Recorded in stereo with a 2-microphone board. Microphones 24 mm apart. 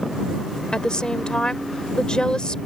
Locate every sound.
0.7 s a woman speaking: 45° left (ahead or behind)